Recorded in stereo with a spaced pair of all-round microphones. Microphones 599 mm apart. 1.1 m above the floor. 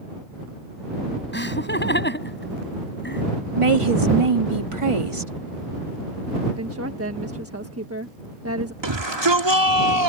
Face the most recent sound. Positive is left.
turn(degrees=-45)  # may be behind; listen again after turning